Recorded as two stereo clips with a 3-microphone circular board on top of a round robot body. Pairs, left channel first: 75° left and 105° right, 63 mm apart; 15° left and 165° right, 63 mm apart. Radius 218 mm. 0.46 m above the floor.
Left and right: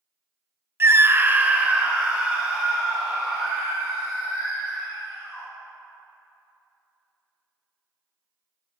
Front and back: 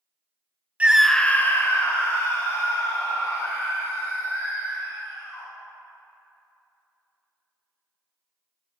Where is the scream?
115° right, 0.8 m; by 5.5 s 25° right, 6.5 m.